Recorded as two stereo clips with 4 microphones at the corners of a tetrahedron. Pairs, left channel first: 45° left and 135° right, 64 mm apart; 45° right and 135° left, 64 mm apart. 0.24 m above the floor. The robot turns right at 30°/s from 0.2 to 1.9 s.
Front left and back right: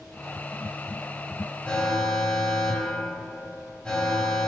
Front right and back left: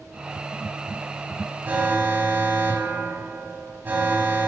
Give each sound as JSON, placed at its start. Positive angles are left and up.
{"t": 1.6, "sound": "an alarm", "azimuth_deg": 100, "distance_m": 1.4}